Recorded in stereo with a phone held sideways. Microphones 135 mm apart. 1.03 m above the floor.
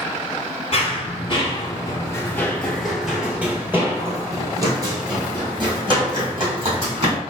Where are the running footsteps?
45° left (ahead or behind), 1.4 m; by 7.2 s 40° right (ahead or behind), 3 m.